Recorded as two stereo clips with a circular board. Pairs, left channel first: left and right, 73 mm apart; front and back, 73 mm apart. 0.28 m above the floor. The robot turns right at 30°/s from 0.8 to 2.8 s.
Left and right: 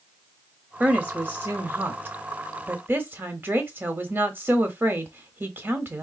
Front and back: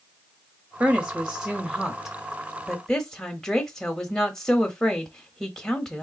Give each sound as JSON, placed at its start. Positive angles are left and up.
{"t": 0.8, "sound": "a woman speaking", "azimuth_deg": -135, "distance_m": 0.9}